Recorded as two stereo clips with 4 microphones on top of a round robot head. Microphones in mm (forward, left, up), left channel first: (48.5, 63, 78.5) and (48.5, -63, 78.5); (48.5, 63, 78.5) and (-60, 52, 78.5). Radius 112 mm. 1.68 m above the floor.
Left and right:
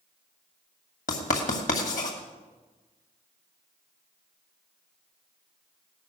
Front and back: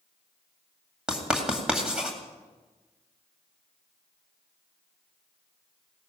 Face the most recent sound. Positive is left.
turn(degrees=105)